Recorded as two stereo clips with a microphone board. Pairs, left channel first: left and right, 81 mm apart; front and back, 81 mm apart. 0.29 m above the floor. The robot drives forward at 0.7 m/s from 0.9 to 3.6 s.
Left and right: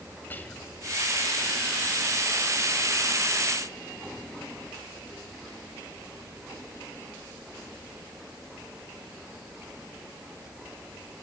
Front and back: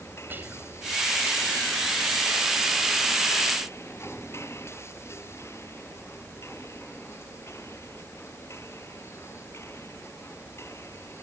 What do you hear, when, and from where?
0.3 s whispering: 140° left, 1.9 m